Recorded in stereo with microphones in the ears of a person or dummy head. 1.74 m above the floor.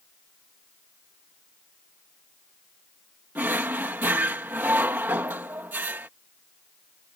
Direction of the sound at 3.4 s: 10° right (ahead or behind).